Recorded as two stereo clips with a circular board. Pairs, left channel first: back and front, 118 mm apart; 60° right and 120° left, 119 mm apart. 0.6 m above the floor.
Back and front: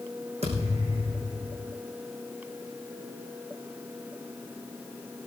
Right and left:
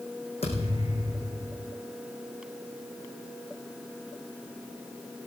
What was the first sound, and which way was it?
A thud, 25° right.